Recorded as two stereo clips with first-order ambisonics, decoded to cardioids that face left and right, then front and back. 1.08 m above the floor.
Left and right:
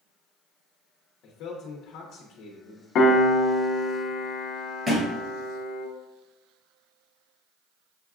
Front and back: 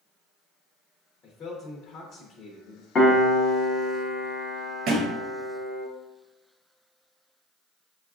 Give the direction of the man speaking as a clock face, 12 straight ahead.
10 o'clock.